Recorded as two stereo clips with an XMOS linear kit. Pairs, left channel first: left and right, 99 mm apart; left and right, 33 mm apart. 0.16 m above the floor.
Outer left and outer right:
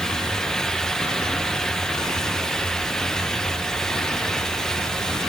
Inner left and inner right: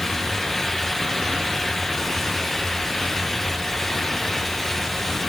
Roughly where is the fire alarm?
I don't hear a fire alarm.